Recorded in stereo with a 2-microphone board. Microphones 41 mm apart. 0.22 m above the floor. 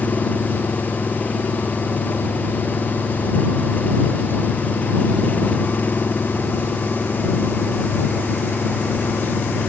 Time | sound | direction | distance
0.0 | an engine running | 35° left (ahead or behind) | ?